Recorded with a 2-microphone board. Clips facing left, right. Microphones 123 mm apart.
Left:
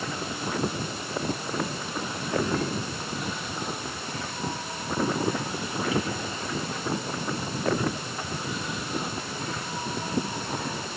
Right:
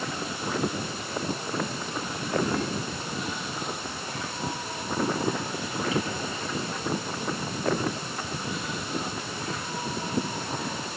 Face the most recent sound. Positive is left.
No sound to turn to.